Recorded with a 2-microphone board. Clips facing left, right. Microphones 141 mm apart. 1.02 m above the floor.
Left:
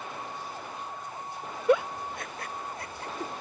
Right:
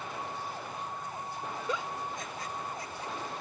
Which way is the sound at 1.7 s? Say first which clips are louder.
Left 13 dB; 65° left (ahead or behind).